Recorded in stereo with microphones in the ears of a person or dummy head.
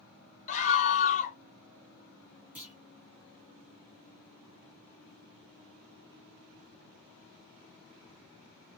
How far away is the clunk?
About 2 m.